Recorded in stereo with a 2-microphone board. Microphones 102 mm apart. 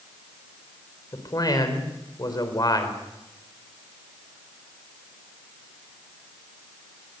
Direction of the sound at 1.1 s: 40° left (ahead or behind).